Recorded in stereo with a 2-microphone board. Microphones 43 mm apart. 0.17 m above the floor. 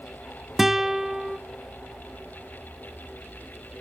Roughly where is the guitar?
Centre.